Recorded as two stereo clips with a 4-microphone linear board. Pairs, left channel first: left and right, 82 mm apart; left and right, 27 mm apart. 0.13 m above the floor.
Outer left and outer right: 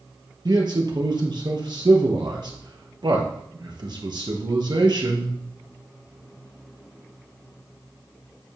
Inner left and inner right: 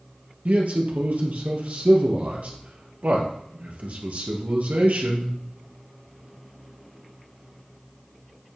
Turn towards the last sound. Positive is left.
turn(degrees=-65)  # may be behind; listen again after turning